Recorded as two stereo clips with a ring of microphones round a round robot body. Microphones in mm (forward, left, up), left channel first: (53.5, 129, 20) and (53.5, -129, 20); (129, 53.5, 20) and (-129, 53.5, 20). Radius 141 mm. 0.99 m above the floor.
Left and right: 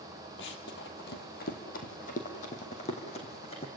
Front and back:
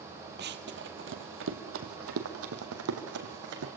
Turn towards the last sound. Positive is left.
turn(degrees=160)